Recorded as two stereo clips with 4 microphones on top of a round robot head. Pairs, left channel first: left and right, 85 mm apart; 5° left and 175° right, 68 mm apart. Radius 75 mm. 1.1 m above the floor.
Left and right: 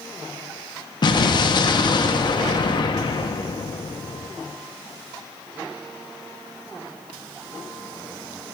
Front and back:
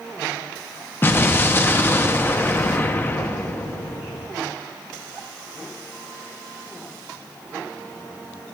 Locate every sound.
1.0 s an explosion: 65° left, 0.8 m